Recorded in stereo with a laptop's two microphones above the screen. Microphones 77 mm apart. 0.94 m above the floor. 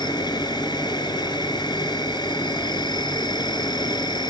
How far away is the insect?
About 6 m.